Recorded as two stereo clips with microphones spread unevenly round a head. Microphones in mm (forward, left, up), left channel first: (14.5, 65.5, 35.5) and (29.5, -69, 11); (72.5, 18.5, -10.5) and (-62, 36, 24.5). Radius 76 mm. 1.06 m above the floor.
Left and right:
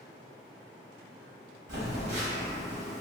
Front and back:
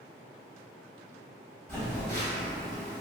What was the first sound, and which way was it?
A phone buzzing, 95° right.